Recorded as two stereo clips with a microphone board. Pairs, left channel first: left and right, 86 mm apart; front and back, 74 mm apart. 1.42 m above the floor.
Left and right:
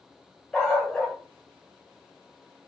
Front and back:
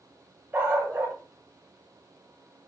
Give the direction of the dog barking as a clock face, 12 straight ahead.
6 o'clock.